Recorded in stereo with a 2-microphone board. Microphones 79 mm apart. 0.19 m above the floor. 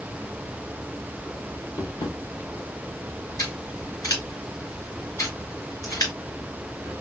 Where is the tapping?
70° left (ahead or behind), 1.5 m.